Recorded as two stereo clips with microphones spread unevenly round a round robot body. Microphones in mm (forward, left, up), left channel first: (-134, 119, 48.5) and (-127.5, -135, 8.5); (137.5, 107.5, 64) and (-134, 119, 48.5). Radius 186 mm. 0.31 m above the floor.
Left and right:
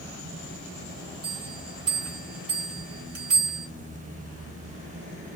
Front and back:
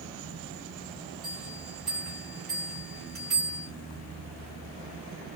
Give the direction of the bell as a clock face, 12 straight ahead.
3 o'clock.